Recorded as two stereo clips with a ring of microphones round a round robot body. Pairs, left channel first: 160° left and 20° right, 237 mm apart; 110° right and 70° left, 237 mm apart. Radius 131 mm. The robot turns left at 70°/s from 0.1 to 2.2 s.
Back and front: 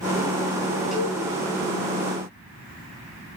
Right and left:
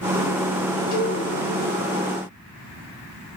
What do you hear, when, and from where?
0.9 s a cowbell: 110° right, 5 m; by 1.2 s 130° right, 5 m